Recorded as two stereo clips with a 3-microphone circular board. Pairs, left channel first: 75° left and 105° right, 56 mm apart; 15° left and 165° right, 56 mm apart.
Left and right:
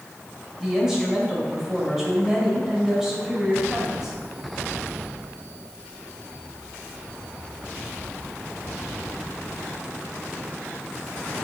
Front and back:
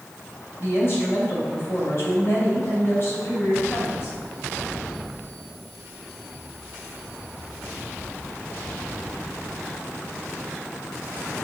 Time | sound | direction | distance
0.6 | a woman speaking | 25° right | 2.5 m